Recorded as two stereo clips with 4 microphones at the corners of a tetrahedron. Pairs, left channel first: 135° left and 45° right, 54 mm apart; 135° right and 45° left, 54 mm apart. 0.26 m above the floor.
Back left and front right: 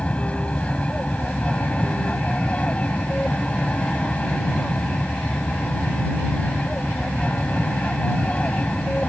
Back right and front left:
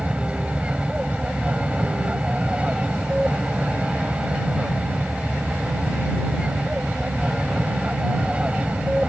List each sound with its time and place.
0.0 s an aircraft: 95° left